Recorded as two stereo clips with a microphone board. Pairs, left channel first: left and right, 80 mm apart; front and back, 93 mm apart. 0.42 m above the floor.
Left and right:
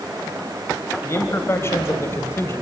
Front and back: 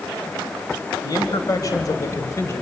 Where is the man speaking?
40° left, 2.5 m; by 2.6 s 50° left, 1.7 m.